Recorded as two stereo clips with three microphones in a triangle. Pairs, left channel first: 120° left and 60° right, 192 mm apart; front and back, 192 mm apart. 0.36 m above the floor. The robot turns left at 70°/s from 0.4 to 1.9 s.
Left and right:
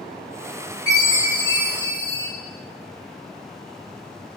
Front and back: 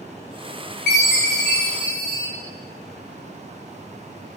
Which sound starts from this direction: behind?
A chime, at 0.9 s.